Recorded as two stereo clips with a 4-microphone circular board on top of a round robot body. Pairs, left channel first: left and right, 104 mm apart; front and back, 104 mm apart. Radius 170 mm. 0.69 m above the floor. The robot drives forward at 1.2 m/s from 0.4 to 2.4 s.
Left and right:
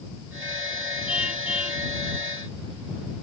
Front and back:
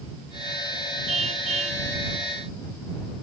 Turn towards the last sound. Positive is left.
turn(degrees=-170)